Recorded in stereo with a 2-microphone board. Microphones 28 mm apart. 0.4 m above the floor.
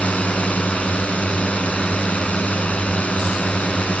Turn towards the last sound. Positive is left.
turn(degrees=50)  # may be behind; listen again after turning